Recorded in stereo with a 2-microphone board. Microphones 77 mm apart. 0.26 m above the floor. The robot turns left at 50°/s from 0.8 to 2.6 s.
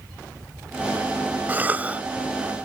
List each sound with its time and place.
1.5 s a cough: 25° right (ahead or behind); by 2.0 s 20° right (ahead or behind)